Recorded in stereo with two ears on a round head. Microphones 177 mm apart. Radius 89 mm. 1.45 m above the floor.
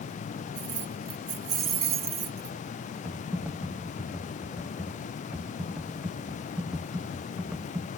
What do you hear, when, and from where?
0.6 s keys jangling: 35° right (ahead or behind)
3.0 s typing on a keyboard: 5° right (ahead or behind)